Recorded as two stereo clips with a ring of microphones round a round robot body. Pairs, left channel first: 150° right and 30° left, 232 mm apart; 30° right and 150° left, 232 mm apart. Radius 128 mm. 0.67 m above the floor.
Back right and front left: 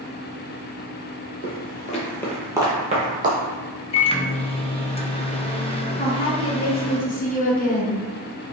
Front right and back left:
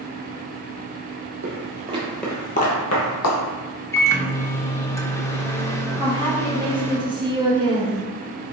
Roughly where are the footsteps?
Behind.